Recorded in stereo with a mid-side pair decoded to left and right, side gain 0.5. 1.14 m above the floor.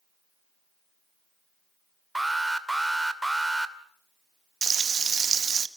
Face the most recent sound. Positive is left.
turn(degrees=-35)